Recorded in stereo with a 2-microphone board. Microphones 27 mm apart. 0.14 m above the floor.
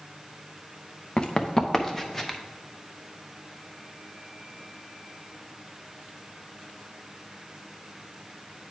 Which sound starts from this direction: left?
Running footsteps, at 1.2 s.